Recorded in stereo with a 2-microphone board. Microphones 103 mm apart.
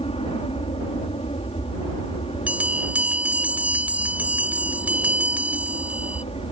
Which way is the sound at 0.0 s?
70° left (ahead or behind).